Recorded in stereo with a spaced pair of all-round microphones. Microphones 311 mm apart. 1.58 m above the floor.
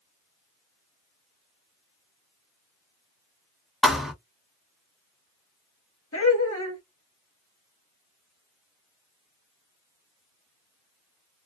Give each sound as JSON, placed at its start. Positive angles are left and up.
{"t": 3.8, "sound": "a thud", "side_deg": 0, "distance_m": 0.9}
{"t": 6.1, "sound": "laughter", "side_deg": 45, "distance_m": 1.2}